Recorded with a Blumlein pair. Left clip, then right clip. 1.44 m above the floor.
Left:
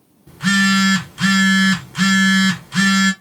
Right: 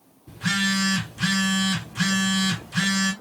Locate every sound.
0.3 s a phone buzzing: 40° left, 1.3 m